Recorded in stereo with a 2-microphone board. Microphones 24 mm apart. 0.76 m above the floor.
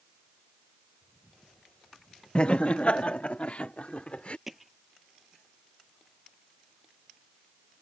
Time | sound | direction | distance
2.4 | laughter | 50° left (ahead or behind) | ?
4.5 | hammering | 10° right (ahead or behind) | ?